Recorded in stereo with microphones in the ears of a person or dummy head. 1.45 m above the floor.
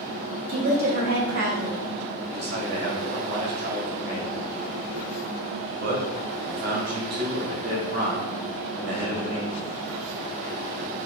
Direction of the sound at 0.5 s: 50° right (ahead or behind).